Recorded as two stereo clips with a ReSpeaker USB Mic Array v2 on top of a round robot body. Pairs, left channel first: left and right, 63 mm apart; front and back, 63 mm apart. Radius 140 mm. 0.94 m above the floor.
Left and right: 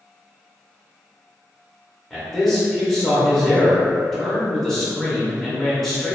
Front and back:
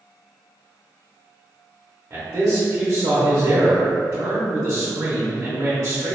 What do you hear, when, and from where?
2.1 s a man speaking: straight behind, 0.8 m